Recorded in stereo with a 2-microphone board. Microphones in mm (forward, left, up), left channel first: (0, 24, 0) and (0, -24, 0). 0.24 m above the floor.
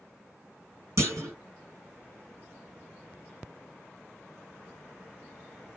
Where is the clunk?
65° right (ahead or behind), 1.0 m.